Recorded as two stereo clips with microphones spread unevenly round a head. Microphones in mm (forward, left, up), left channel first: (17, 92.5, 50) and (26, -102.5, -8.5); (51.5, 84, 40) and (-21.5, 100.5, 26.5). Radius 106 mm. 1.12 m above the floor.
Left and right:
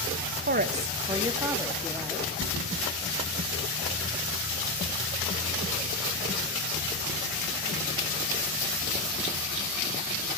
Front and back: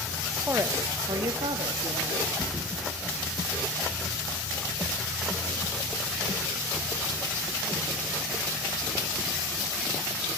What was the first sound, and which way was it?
A woman speaking, 120° right.